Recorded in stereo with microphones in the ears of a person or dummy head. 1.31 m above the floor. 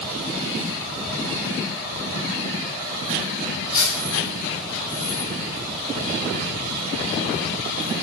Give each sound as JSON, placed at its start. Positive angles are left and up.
{"t": 3.7, "sound": "cutlery clinking", "side_deg": 65, "distance_m": 1.5}